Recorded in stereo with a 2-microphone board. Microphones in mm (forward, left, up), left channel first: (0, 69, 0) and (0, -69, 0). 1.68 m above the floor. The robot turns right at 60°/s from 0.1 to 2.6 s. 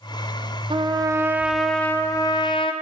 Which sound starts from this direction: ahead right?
A trumpet, at 0.7 s.